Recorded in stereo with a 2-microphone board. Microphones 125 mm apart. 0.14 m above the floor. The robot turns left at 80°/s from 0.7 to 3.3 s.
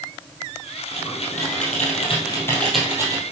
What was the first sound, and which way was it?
Typing on a keyboard, 30° left (ahead or behind).